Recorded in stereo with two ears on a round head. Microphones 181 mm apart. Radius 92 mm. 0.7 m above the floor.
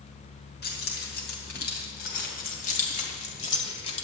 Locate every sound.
0.6 s keys jangling: 55° left (ahead or behind), 3.5 m; by 4.0 s 30° left (ahead or behind), 1.8 m